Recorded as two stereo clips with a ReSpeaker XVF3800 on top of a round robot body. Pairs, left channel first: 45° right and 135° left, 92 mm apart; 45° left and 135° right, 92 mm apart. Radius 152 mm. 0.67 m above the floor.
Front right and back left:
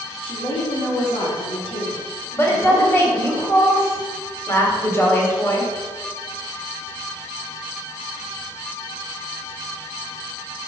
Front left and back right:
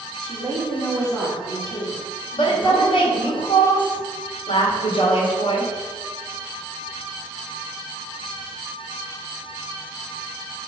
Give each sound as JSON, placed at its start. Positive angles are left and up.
{"t": 0.2, "sound": "a woman speaking", "azimuth_deg": -40, "distance_m": 2.5}
{"t": 2.3, "sound": "a woman speaking", "azimuth_deg": 20, "distance_m": 2.0}